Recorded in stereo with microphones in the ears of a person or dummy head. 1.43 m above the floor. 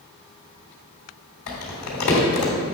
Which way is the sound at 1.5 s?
60° left (ahead or behind).